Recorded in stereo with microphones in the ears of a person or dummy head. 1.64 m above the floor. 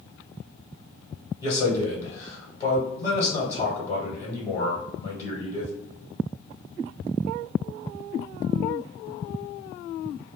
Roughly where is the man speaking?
Left.